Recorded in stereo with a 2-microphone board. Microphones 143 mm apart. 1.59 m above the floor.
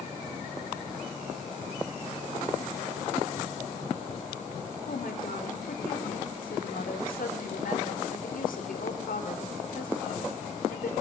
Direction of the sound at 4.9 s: 85° left.